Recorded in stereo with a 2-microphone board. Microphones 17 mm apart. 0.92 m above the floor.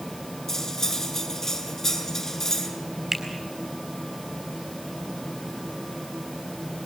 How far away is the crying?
I don't hear crying.